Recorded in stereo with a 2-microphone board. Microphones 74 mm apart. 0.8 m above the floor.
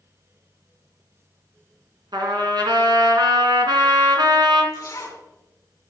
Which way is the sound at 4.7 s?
40° left (ahead or behind).